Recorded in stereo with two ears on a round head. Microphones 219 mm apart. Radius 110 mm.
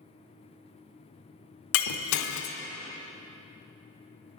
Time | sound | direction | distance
1.7 | breaking glass | 80° left | 0.5 m